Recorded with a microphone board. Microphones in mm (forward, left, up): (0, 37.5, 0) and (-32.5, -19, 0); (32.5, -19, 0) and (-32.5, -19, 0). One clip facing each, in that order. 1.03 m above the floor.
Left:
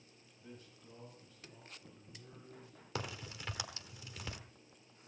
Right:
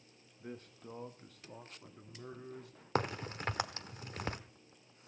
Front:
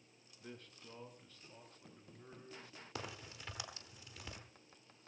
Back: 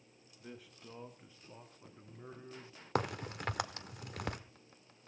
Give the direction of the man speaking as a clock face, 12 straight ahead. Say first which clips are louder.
Right 8 dB, back 2 dB; 3 o'clock.